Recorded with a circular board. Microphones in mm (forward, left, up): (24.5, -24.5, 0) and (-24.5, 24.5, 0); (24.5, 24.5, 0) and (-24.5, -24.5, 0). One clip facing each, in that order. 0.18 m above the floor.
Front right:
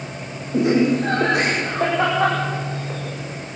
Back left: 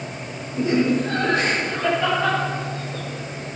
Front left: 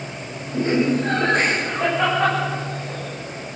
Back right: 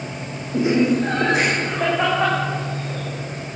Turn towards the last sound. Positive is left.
turn(degrees=-45)